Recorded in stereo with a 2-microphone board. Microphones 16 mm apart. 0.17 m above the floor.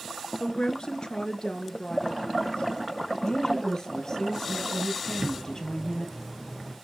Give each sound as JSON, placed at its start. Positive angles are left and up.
{"t": 0.4, "sound": "a woman speaking", "side_deg": 55, "distance_m": 2.0}
{"t": 3.2, "sound": "a woman speaking", "side_deg": 45, "distance_m": 3.5}
{"t": 5.1, "sound": "a bird", "side_deg": -40, "distance_m": 4.5}